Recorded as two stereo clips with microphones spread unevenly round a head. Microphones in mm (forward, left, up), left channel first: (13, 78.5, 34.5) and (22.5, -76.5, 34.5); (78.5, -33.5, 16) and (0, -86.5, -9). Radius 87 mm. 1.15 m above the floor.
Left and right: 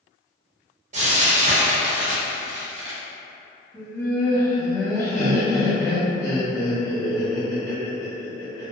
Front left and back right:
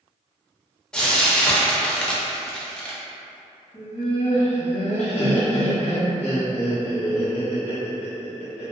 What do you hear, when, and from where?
0.9 s frying: 45° right, 0.8 m
3.7 s laughter: 25° left, 1.5 m